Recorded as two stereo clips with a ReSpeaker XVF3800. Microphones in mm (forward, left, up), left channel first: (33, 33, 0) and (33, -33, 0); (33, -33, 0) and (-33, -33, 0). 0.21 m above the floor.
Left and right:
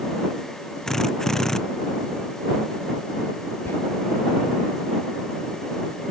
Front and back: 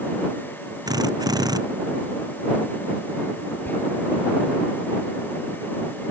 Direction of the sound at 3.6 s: 55° left.